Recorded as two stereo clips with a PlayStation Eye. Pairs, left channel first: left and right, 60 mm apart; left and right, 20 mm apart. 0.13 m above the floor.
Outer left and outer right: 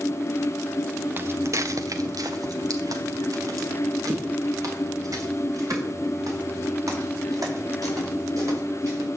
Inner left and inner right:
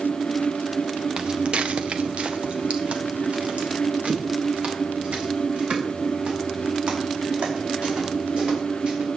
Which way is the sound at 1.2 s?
35° right (ahead or behind).